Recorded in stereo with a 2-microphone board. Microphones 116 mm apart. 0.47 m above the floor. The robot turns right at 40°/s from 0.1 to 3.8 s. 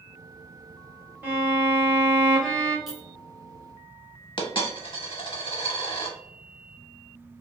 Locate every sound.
1.2 s a violin: 20° right (ahead or behind), 1.0 m; by 2.8 s 10° left (ahead or behind), 1.0 m
2.9 s a clink: 5° right (ahead or behind), 0.9 m
4.4 s a dropped coin: 45° left (ahead or behind), 0.7 m